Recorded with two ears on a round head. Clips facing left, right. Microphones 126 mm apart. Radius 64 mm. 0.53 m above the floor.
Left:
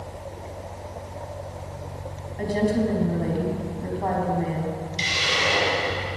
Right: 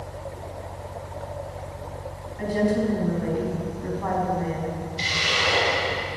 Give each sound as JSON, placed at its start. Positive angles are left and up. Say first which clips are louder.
{"t": 2.4, "sound": "a woman speaking", "louder": "even", "side_deg": 35, "distance_m": 4.5}
{"t": 5.0, "sound": "a hiss", "louder": "left 1 dB", "side_deg": 25, "distance_m": 4.5}